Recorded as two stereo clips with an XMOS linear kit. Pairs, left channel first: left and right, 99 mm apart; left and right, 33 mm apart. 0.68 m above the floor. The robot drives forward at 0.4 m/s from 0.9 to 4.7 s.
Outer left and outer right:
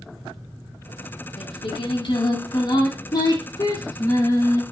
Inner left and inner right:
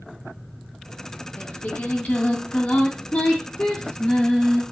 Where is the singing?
65° left (ahead or behind), 1.2 m; by 4.6 s 30° left (ahead or behind), 2 m.